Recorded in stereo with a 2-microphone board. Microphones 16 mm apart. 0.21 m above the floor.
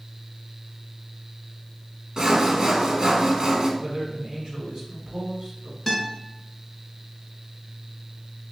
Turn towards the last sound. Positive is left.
turn(degrees=5)  # may be behind; listen again after turning